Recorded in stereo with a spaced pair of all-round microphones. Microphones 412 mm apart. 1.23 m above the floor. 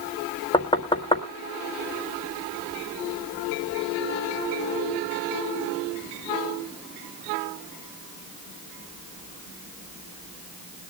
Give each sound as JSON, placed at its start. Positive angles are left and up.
{"t": 0.5, "sound": "knocking", "side_deg": 10, "distance_m": 1.4}